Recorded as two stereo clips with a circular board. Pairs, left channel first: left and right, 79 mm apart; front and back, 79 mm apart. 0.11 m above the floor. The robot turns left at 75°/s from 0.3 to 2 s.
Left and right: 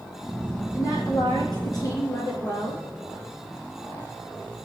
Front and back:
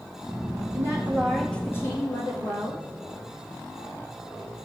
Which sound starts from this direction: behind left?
A woman speaking, at 0.7 s.